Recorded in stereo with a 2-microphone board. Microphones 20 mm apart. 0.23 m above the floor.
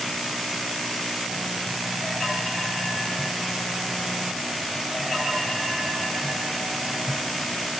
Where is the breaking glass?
No breaking glass in this recording.